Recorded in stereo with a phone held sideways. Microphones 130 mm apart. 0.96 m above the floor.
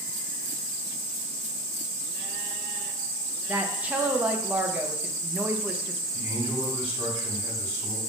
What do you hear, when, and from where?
3.5 s a woman speaking: 10° right (ahead or behind), 0.5 m
6.1 s a man speaking: 40° right (ahead or behind), 2.5 m